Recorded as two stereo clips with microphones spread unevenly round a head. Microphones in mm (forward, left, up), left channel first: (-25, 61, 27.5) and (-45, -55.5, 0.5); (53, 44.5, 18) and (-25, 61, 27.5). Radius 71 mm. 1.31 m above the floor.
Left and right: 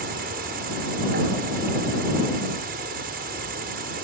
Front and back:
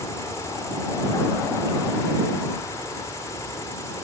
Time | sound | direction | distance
0.0 | an insect | 80° right | ?